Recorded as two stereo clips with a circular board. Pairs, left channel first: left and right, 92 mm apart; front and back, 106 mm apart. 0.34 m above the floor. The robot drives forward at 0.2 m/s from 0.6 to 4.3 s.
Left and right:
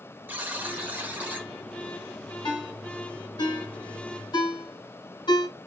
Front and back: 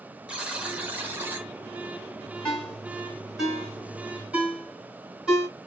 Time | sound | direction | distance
0.3 | a buzzer | 120° right | 0.8 m
2.5 | a ringtone | 80° left | 1.2 m